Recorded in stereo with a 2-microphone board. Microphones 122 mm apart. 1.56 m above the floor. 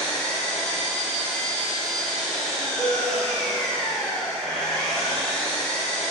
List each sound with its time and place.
0.0 s an engine running: 5° left (ahead or behind), 0.7 m
2.8 s a cowbell: centre (ahead or behind), 0.8 m